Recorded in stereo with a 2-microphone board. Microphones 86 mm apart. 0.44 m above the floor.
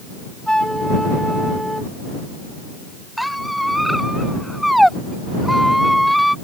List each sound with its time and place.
0.5 s a flute: 10° left (ahead or behind)
3.2 s a squeak: centre (ahead or behind)